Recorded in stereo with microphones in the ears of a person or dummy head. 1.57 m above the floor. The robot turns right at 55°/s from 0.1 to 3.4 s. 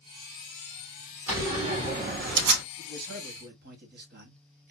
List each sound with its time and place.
1.3 s a door slam: 170° right, 2.5 m; by 2.6 s 95° right, 2.5 m
2.8 s a man speaking: 85° right, 1.7 m; by 4.7 s 50° right, 1.7 m